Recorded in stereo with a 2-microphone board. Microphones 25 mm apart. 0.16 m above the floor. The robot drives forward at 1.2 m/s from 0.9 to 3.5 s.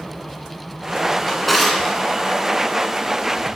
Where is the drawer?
5° left (ahead or behind), 0.9 m.